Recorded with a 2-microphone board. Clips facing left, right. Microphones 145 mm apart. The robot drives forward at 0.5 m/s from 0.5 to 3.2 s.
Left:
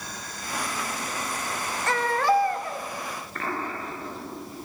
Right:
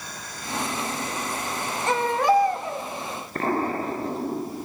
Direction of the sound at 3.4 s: 40° right (ahead or behind).